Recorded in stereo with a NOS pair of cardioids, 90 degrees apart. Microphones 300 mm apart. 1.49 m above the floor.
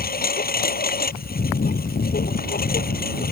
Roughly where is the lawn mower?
Ahead left.